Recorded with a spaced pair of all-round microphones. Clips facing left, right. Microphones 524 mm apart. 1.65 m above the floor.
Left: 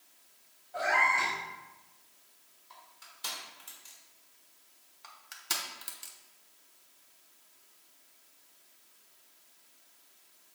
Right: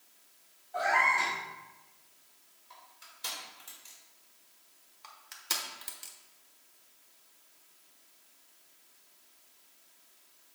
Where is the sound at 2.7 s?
10° left (ahead or behind), 3 m.